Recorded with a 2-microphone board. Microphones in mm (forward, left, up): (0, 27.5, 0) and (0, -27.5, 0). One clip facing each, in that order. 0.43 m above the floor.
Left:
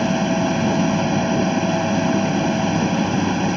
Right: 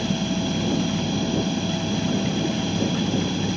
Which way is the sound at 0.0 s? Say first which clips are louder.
Left 6 dB; 40° left (ahead or behind).